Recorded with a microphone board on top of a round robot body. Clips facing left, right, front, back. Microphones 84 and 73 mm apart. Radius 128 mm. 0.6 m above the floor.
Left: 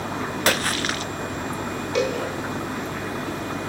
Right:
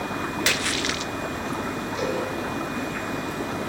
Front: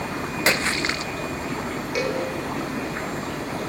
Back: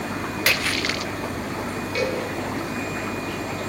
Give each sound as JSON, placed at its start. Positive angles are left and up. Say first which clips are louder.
{"t": 0.5, "sound": "a splash", "louder": "left 3 dB, front 2 dB", "azimuth_deg": 55, "distance_m": 0.6}
{"t": 1.9, "sound": "a cowbell", "louder": "left 5 dB, even", "azimuth_deg": 75, "distance_m": 8.0}